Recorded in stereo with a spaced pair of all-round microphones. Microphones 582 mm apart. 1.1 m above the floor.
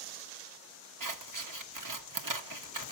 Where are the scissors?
35° right (ahead or behind), 0.8 m.